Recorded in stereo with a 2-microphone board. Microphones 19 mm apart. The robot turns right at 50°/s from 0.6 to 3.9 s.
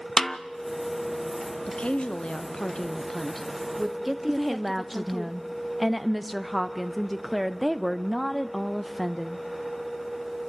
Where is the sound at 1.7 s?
85° left, 1.0 m; by 5.3 s 165° right, 1.0 m.